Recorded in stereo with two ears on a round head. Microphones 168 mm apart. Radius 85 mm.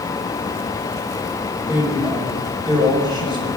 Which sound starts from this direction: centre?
A woman speaking, at 1.7 s.